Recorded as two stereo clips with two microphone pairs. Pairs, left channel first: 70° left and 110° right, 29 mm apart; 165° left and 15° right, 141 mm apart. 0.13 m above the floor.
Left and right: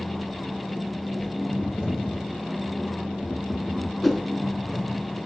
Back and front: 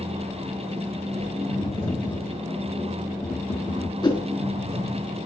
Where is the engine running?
55° right, 4 m.